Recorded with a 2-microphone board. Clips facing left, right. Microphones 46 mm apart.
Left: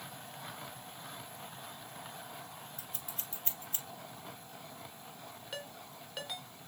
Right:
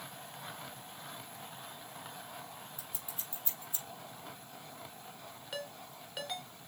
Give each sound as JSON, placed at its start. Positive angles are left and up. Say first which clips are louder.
{"t": 2.8, "sound": "scissors", "louder": "left 1 dB", "side_deg": 60, "distance_m": 3.5}
{"t": 5.5, "sound": "a ringtone", "louder": "right 3 dB", "side_deg": 0, "distance_m": 1.5}